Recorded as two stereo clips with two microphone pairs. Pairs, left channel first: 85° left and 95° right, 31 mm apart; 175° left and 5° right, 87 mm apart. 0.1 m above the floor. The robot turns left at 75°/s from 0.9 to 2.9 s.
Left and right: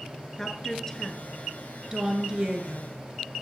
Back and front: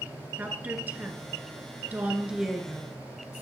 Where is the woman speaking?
35° left, 1.2 m; by 2.9 s 115° right, 1.2 m.